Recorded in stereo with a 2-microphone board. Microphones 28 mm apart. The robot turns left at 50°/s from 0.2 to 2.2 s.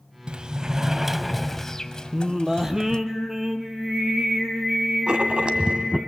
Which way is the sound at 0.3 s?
125° right.